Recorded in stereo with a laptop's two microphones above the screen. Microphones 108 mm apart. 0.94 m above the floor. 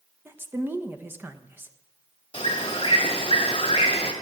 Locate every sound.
0.2 s a woman speaking: 15° right (ahead or behind), 0.7 m
2.3 s a bird: 45° left (ahead or behind), 2 m